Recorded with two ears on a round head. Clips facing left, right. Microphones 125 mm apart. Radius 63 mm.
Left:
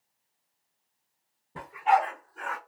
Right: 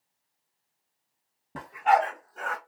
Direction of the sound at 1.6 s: 70° right (ahead or behind).